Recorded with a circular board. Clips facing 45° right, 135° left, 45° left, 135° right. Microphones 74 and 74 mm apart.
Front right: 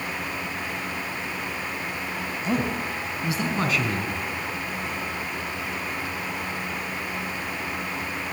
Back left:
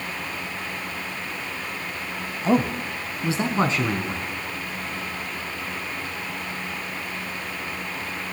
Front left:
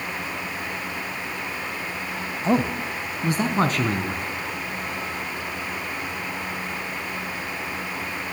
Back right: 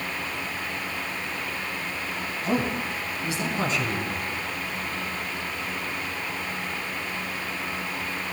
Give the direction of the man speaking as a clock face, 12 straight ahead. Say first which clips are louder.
Back left 5 dB, front left 4 dB; 9 o'clock.